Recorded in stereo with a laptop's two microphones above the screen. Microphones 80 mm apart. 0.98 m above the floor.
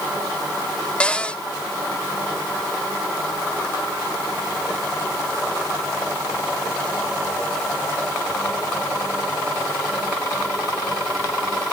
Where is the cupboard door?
15° left (ahead or behind), 0.8 m.